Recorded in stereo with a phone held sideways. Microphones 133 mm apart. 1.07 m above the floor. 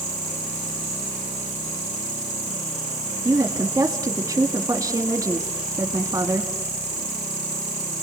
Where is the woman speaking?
25° right (ahead or behind), 2 m.